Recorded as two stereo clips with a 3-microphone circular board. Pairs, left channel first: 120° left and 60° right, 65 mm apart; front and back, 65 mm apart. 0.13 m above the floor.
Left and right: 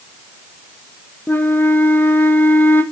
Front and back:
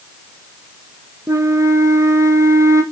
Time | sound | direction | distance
1.3 | a flute | 165° left | 0.7 m